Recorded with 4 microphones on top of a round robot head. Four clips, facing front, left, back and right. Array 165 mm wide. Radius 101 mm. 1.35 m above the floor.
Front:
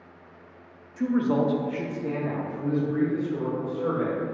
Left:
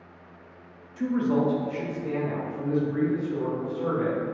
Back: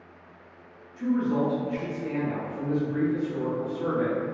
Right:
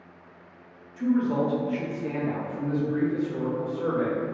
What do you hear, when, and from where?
1.0 s a man speaking: 25° left, 0.5 m; by 4.2 s 60° right, 1.8 m